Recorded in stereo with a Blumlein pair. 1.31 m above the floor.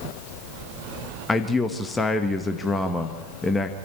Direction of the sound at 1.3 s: 10° left.